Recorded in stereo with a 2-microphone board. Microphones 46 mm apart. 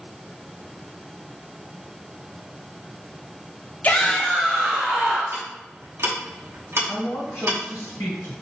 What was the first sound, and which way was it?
A shout, 30° left (ahead or behind).